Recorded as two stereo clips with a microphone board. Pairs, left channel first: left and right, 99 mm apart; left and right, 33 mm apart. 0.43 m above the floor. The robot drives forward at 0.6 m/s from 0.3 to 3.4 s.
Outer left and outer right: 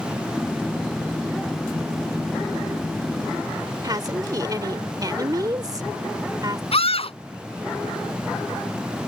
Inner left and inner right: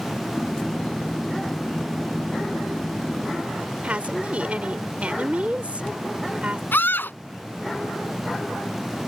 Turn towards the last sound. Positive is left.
turn(degrees=75)  # may be behind; listen again after turning